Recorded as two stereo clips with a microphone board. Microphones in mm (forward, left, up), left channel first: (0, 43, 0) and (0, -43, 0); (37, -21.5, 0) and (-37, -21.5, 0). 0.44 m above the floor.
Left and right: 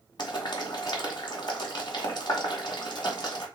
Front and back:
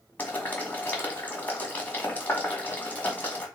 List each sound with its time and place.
0.2 s boiling: 65° left, 1.5 m